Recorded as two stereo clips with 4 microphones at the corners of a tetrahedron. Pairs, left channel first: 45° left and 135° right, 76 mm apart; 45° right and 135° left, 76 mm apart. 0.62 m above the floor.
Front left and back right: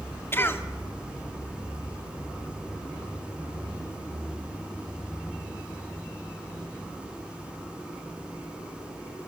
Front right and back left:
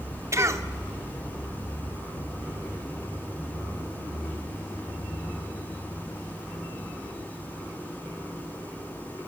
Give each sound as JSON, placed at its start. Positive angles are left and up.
{"t": 0.3, "sound": "a cough", "azimuth_deg": 95, "distance_m": 1.6}